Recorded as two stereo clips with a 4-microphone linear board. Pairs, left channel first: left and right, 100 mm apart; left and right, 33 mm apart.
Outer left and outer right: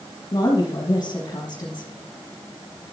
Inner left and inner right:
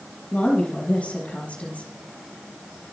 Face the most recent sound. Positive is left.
turn(degrees=45)  # may be behind; listen again after turning